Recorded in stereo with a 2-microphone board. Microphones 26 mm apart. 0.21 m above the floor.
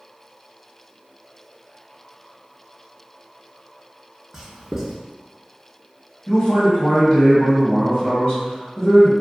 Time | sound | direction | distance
4.3 | writing | 20° right (ahead or behind) | 0.8 m
6.3 | a man speaking | 35° left (ahead or behind) | 1.8 m